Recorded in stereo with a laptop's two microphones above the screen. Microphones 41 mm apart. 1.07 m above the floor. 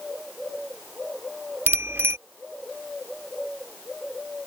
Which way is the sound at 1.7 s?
70° right (ahead or behind).